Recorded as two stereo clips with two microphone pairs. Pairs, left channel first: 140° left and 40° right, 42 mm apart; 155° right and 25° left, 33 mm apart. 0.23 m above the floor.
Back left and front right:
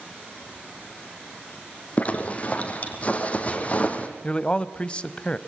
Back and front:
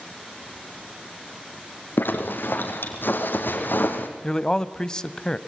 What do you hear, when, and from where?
2.0 s a zipper: 165° right, 3 m
4.2 s a man speaking: 155° left, 1.0 m